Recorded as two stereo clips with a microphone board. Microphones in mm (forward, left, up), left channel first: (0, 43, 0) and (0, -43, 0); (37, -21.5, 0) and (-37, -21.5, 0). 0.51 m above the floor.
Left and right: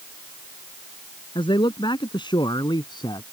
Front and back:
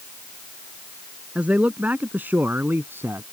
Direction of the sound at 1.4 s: 110° left.